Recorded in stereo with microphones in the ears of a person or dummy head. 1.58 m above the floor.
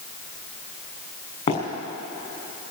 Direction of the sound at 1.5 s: 35° left (ahead or behind).